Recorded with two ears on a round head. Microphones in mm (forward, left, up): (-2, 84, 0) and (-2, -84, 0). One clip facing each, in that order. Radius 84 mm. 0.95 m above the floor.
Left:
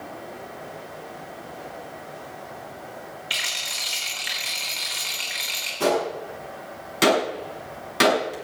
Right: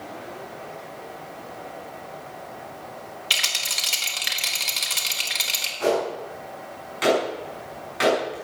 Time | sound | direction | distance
3.3 | a rattle | 55° right (ahead or behind) | 4 m
5.8 | a gunshot | 55° left (ahead or behind) | 6.5 m